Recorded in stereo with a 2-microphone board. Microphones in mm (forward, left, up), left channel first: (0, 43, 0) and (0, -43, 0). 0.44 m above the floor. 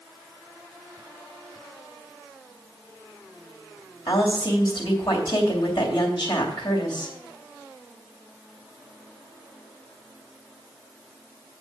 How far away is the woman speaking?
About 2.5 m.